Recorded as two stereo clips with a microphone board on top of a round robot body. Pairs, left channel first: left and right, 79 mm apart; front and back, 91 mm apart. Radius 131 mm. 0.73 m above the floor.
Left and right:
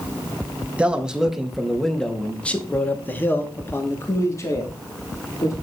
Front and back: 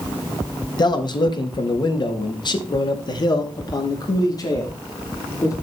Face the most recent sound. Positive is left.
turn(degrees=50)